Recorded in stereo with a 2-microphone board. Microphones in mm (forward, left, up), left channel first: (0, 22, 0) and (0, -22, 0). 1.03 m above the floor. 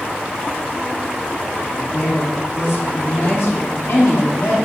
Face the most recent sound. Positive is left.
turn(degrees=75)  # may be behind; listen again after turning